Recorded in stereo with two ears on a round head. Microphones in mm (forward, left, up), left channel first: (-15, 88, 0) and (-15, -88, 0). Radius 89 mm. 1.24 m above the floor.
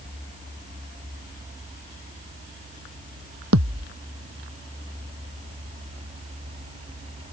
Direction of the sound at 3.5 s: 75° right (ahead or behind).